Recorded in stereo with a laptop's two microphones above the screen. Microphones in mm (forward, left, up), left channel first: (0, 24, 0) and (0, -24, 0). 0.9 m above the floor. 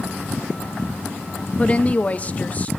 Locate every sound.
1.6 s a woman speaking: 25° left (ahead or behind), 0.7 m; by 2.7 s 30° left (ahead or behind), 1.4 m